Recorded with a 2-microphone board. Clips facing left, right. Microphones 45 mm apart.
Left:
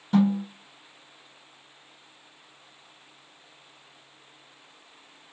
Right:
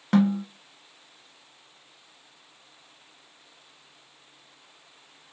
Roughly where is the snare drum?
Right.